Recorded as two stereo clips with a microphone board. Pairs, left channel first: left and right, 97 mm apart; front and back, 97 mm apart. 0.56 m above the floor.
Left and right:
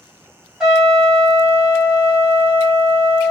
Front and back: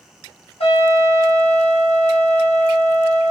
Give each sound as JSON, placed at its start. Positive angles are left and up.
{"t": 0.6, "sound": "a trumpet", "azimuth_deg": -5, "distance_m": 1.5}